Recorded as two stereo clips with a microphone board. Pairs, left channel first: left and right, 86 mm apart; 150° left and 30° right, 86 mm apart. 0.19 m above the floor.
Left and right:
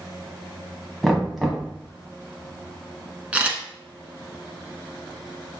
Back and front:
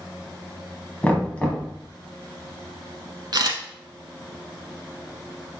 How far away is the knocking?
About 1.2 m.